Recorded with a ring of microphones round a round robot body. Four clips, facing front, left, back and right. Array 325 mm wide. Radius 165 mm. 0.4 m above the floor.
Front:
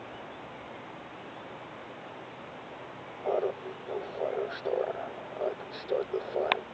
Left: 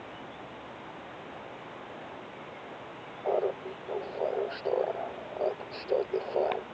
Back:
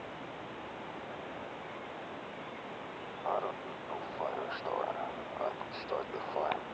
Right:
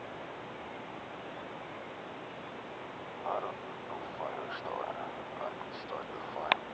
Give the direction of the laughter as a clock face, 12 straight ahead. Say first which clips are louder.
Left 8 dB, front 5 dB; 10 o'clock.